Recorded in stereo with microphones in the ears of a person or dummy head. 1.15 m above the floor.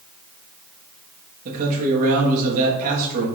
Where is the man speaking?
50° right (ahead or behind), 1.1 m.